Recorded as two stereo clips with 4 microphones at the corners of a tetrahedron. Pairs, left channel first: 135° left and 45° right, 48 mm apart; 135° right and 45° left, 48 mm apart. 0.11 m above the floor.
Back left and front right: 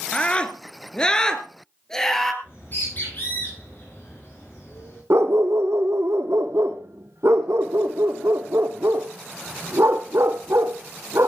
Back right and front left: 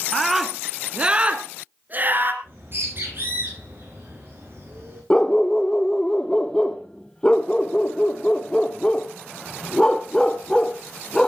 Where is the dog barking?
60° right, 1.2 m.